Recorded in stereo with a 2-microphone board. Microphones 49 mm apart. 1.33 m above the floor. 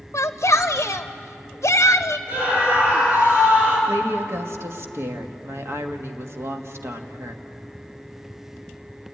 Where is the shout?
70° left (ahead or behind), 0.5 m.